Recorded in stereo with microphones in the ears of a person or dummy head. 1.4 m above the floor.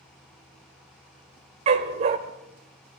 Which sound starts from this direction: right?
A dog barking, at 1.7 s.